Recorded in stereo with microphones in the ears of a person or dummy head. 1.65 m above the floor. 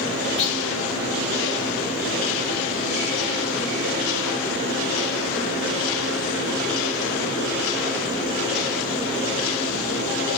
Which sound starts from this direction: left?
A clunk, at 0.4 s.